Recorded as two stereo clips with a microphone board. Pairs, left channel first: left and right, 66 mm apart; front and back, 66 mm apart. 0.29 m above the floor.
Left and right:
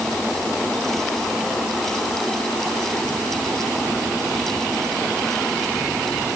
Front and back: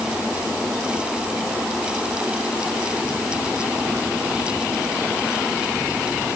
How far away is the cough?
No cough in this recording.